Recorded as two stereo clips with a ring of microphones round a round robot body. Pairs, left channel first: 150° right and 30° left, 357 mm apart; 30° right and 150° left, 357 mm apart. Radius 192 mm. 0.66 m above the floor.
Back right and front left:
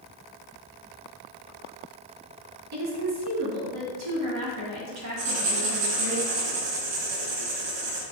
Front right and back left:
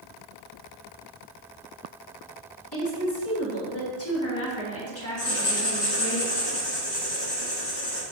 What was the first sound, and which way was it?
A woman speaking, 5° left.